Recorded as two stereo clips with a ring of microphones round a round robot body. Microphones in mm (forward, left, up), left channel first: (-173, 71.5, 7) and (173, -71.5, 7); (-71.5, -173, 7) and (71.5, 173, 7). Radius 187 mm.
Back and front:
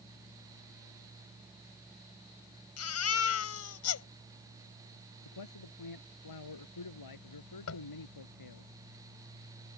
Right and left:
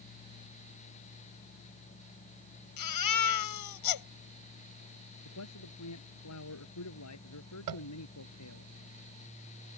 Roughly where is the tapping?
Left.